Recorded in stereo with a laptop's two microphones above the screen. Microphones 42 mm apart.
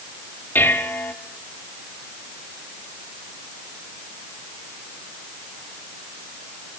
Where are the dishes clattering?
60° left (ahead or behind), 4 m.